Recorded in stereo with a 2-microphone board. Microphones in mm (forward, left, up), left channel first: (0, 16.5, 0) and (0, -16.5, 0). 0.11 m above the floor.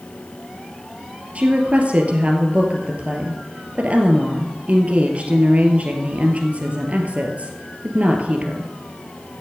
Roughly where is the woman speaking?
Right.